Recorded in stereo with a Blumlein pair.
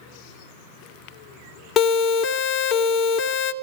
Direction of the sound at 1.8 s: 25° left.